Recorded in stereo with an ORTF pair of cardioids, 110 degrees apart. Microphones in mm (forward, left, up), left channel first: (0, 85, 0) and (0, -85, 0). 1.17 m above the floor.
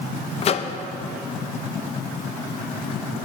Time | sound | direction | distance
0.4 | a microwave | 40° left | 0.6 m